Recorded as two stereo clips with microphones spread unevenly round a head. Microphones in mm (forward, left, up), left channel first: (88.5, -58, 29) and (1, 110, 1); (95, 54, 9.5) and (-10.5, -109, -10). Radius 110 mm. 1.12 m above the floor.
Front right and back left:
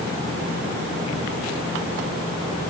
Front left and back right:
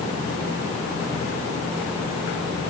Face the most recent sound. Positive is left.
No sound to turn to.